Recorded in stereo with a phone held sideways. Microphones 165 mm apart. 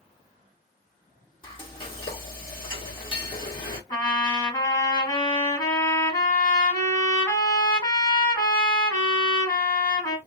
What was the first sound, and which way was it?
Frying, 30° left (ahead or behind).